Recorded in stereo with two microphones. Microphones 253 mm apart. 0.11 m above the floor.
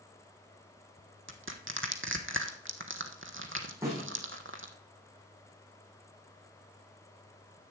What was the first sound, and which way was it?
Crushing, 55° right (ahead or behind).